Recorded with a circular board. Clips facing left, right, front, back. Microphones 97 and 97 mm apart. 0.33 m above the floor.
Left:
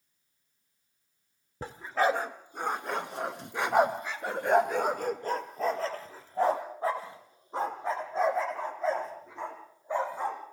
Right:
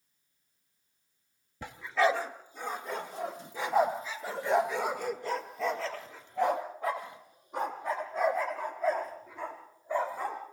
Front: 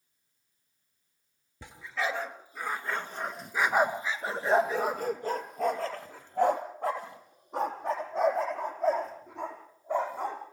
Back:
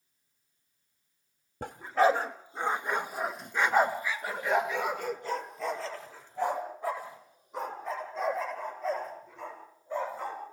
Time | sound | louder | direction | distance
1.6 | a dog barking | even, back 9 dB | 140° left | 2.0 m